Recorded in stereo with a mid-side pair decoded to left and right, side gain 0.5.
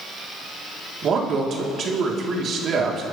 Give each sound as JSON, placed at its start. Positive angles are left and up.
{"t": 1.0, "sound": "a man speaking", "azimuth_deg": -50, "distance_m": 2.5}